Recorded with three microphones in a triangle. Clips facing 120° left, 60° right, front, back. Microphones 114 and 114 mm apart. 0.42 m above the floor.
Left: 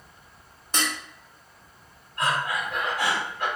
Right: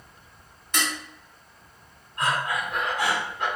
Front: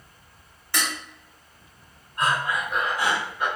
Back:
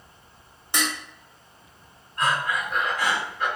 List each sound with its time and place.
0.7 s dishes clattering: 125° left, 0.7 m
2.2 s breathing: 50° right, 1.4 m